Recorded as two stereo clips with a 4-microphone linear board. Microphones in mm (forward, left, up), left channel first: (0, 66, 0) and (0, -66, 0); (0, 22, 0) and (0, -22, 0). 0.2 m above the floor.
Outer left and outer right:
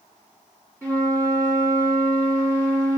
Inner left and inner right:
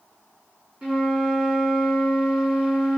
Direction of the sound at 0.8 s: 25° right (ahead or behind).